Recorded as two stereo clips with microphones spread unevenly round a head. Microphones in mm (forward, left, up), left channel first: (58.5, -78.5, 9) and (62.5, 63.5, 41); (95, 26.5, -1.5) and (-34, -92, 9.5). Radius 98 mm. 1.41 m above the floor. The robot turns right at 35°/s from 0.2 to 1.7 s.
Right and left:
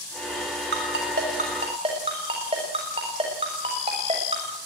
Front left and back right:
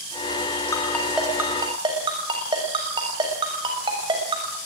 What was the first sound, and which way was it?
A ringtone, 120° left.